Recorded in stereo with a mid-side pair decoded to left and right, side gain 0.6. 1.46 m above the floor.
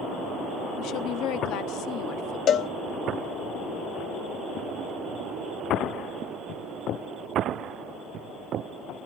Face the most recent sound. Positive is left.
turn(degrees=55)